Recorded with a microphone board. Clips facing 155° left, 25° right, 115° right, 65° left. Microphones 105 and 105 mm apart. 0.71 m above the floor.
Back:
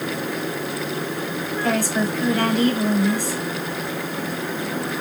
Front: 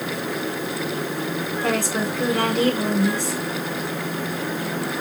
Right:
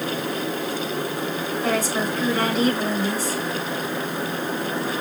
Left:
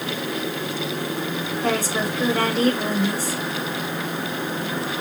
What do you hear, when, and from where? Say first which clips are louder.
1.6 s a woman speaking: back 2 dB, even; 10° left, 5 m